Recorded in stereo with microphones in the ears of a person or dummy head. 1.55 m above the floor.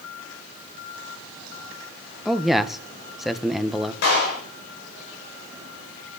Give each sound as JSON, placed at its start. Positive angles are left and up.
{"t": 2.2, "sound": "a man speaking", "side_deg": 0, "distance_m": 1.6}
{"t": 4.0, "sound": "a clap", "side_deg": 65, "distance_m": 6.5}